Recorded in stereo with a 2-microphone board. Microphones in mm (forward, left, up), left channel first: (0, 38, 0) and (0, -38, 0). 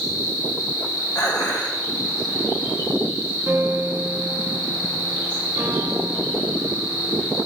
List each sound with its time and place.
0.0 s an insect: 80° left, 3 m
1.1 s dishes clattering: 50° left (ahead or behind), 1.3 m
3.5 s a piano: 35° right (ahead or behind), 1.0 m